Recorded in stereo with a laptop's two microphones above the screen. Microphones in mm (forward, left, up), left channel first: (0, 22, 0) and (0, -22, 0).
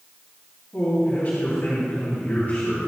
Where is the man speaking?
50° left (ahead or behind), 2.5 m.